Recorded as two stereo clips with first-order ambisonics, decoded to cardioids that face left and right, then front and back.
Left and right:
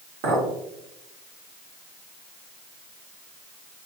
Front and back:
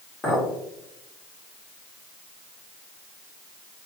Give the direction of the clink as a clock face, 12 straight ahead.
3 o'clock.